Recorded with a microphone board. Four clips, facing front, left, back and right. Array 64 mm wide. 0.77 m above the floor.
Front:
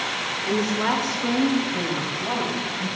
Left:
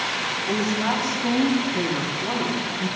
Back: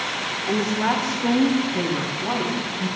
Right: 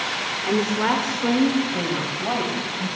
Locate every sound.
0.5 s a woman speaking: 65° right, 2.5 m; by 2.9 s 90° right, 5.5 m